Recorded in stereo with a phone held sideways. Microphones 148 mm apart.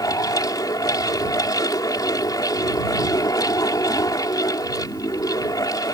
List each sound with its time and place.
0.0 s a fan: 25° left (ahead or behind)